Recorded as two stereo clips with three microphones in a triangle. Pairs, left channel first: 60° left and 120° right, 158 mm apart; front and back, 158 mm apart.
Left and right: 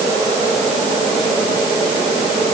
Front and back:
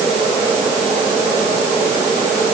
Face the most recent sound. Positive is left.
No sound to turn to.